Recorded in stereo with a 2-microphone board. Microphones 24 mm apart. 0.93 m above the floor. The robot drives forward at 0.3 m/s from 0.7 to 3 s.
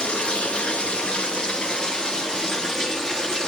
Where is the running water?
50° left (ahead or behind), 0.8 m; by 3.5 s 25° left (ahead or behind), 1.3 m.